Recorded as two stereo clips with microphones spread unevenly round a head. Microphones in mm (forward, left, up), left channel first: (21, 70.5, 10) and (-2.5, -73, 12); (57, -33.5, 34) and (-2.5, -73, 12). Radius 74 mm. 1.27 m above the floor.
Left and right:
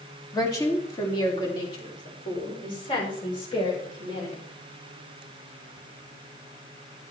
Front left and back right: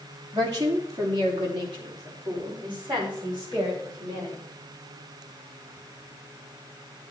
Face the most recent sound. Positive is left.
turn(degrees=135)